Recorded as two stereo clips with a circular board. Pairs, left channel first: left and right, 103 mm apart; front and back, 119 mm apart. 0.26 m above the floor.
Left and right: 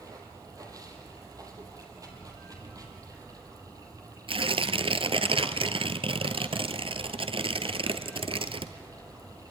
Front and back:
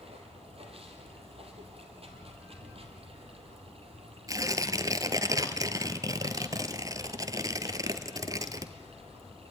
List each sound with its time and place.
0.0 s running water: 145° right, 3 m
4.3 s tearing paper: 120° right, 1.1 m